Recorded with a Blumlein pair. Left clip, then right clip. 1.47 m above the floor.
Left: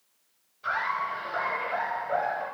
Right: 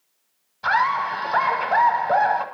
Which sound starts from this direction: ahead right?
Laughter, at 0.6 s.